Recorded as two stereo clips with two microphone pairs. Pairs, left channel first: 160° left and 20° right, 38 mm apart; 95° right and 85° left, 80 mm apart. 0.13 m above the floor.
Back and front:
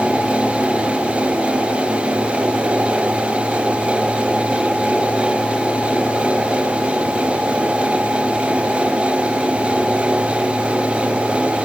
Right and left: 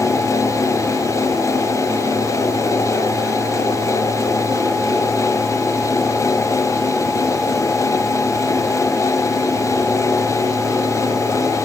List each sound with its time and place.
Only background noise.